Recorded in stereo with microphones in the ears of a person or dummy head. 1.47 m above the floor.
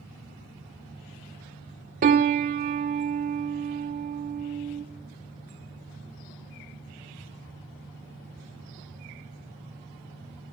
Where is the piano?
40° right (ahead or behind), 1.3 m.